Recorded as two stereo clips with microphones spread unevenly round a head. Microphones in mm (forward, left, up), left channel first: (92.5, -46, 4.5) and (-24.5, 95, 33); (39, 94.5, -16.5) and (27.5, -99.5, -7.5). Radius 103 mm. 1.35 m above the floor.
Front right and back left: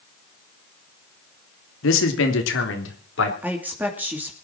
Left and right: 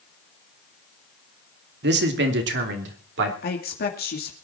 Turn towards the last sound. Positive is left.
turn(degrees=50)